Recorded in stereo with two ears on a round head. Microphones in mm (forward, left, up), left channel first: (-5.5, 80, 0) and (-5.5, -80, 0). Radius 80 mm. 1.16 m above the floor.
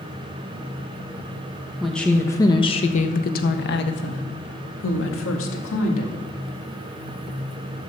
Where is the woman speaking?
Centre (ahead or behind), 1.2 m; by 6.2 s 80° left, 2.5 m.